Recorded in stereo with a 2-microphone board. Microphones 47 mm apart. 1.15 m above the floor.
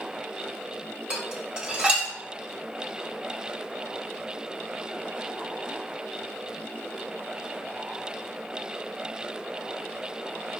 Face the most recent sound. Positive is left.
turn(degrees=-20)  # may be behind; listen again after turning